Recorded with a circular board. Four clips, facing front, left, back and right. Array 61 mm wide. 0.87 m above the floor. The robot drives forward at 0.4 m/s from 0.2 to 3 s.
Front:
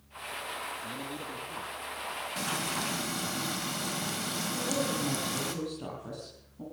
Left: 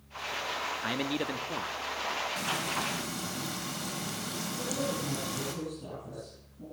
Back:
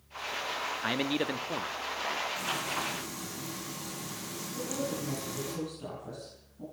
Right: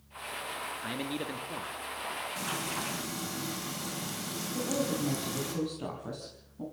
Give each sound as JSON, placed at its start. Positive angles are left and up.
{"t": 0.8, "sound": "a man speaking", "azimuth_deg": 155, "distance_m": 1.3}
{"t": 2.4, "sound": "frying", "azimuth_deg": 5, "distance_m": 4.5}
{"t": 4.5, "sound": "a woman speaking", "azimuth_deg": -65, "distance_m": 6.5}